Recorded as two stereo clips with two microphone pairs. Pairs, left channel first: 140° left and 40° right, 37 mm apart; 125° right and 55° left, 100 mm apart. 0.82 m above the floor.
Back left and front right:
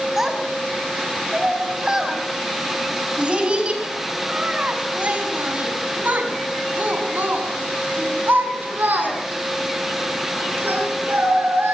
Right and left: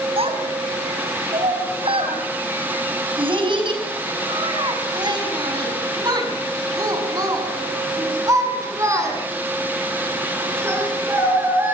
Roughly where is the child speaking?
Ahead left.